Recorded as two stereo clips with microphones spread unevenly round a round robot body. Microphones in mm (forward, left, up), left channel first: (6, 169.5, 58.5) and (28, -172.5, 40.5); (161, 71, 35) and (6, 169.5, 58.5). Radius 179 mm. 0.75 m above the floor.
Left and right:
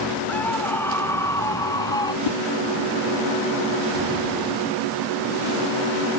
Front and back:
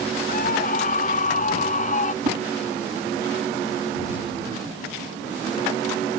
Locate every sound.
0.3 s a scream: 10° left; by 2.1 s 15° left
2.2 s a whoosh: 95° left